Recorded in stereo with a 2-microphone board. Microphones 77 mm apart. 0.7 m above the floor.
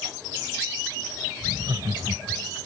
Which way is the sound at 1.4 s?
65° right (ahead or behind).